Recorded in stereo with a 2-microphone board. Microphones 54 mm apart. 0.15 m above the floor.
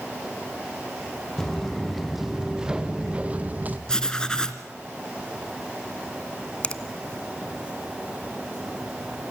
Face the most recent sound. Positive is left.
turn(degrees=25)  # may be behind; listen again after turning